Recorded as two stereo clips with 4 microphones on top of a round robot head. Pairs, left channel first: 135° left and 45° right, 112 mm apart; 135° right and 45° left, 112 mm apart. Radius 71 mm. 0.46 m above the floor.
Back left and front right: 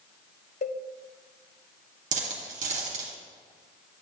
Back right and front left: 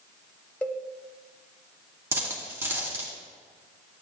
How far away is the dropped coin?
About 2 m.